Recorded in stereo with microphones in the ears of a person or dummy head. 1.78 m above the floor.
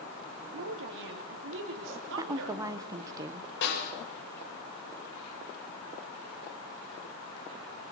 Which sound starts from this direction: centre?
A woman speaking, at 2.2 s.